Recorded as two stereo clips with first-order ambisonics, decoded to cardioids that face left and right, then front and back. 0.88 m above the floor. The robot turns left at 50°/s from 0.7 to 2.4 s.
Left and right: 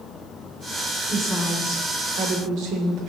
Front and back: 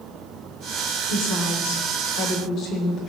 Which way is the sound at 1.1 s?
10° left.